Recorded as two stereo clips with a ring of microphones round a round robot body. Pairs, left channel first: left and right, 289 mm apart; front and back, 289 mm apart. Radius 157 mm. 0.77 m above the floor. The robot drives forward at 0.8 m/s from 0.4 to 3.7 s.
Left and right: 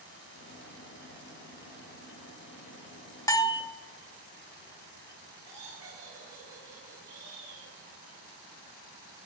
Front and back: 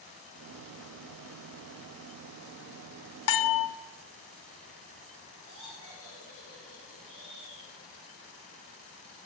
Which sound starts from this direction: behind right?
Laughter, at 5.4 s.